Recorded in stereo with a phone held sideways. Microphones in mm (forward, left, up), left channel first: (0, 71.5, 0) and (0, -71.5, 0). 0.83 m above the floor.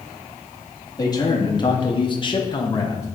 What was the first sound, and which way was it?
A man speaking, 25° left (ahead or behind).